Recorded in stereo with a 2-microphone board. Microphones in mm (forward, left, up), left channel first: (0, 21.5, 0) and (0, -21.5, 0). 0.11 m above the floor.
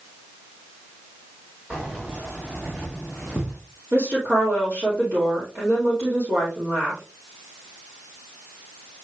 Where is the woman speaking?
50° right (ahead or behind), 4.5 m.